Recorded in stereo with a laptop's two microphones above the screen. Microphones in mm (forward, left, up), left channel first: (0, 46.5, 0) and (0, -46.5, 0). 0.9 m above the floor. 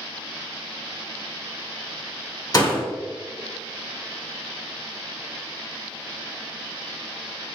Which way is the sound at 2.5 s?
40° left (ahead or behind).